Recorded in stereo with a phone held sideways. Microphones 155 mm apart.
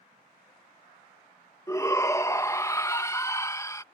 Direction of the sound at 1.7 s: 20° left (ahead or behind).